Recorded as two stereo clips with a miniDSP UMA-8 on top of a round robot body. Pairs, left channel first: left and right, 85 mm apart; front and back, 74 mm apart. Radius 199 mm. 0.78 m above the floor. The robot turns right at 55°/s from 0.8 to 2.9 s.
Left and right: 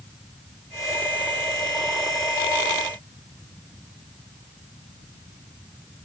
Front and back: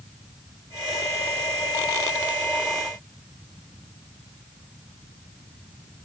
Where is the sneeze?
I don't hear a sneeze.